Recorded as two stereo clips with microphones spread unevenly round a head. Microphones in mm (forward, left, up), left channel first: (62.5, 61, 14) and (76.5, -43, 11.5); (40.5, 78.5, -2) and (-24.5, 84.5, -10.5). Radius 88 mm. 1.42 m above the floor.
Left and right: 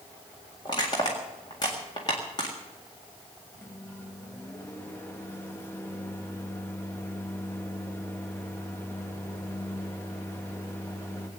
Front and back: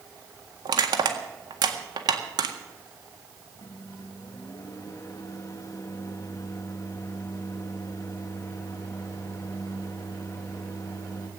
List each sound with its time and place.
0.7 s crushing: 165° left, 1.7 m
3.6 s a microwave: 30° left, 1.7 m